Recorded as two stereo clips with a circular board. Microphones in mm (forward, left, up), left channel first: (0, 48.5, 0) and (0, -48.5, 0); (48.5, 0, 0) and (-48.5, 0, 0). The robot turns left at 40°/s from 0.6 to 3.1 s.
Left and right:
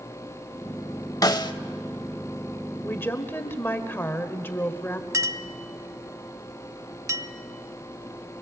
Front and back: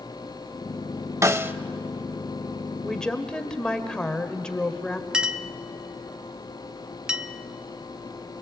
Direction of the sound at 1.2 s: 130° left.